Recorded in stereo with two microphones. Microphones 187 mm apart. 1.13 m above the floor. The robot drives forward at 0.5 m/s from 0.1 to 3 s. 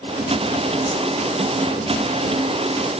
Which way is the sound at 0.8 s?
25° left (ahead or behind).